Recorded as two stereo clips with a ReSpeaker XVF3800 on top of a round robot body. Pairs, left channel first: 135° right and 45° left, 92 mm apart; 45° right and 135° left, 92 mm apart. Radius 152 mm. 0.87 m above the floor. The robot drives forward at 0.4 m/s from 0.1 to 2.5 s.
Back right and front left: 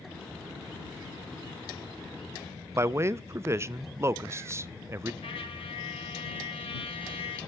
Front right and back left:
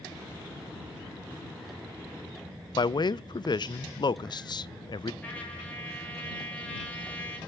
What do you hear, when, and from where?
2.8 s a man speaking: 15° right, 0.6 m
5.2 s a trumpet: 120° right, 2 m